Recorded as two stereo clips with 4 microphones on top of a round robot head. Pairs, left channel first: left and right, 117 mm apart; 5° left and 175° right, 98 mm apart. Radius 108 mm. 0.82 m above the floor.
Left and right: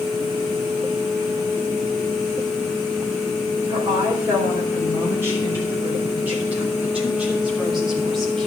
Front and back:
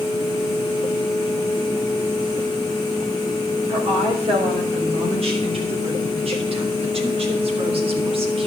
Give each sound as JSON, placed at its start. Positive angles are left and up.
{"t": 3.7, "sound": "a woman speaking", "azimuth_deg": -155, "distance_m": 4.5}